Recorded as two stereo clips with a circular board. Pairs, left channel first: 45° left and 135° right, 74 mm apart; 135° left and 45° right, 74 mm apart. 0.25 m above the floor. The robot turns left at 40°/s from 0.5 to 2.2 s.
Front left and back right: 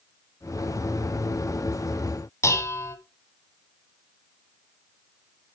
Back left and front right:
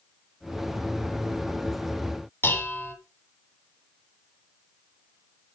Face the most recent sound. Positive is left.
turn(degrees=85)